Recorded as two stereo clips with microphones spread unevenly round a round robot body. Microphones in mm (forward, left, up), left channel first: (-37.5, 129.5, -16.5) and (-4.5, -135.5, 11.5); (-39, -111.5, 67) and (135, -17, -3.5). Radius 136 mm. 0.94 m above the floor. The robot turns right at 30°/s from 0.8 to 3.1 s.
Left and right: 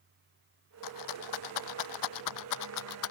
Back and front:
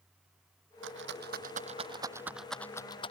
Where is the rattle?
70° left; by 3.1 s 140° left.